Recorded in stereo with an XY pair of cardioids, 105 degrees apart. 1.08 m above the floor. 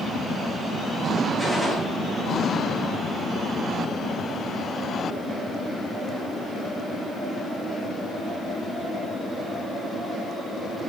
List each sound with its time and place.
1.4 s a gunshot: straight ahead, 6 m